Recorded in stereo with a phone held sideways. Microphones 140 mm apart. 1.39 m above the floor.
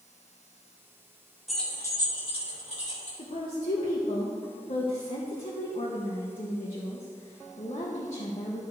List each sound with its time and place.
1.5 s keys jangling: centre (ahead or behind), 1.3 m; by 3.1 s 60° left (ahead or behind), 3 m
3.2 s a woman speaking: 65° left (ahead or behind), 1.3 m